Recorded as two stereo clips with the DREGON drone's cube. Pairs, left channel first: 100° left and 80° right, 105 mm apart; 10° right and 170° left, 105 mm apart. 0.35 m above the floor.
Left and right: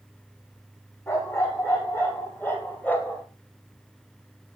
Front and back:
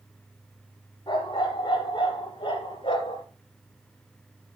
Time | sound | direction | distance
1.1 | a dog barking | 35° left | 4.5 m